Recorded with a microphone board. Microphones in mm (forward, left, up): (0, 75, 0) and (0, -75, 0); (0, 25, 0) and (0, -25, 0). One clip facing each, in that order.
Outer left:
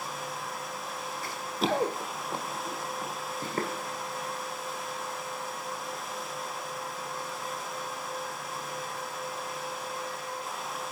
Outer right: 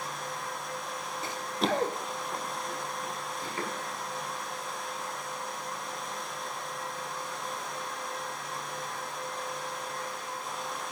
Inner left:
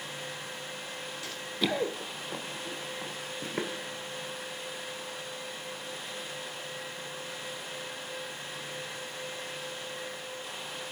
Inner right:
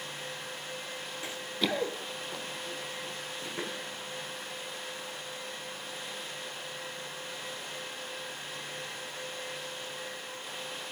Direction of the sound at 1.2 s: 25° right (ahead or behind).